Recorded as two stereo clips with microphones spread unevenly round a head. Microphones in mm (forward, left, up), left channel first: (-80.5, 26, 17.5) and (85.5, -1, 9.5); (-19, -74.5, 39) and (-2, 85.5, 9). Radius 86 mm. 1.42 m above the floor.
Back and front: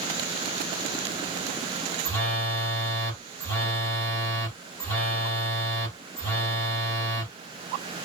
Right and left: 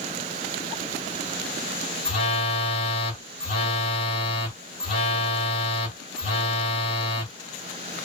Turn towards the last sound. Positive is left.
turn(degrees=-120)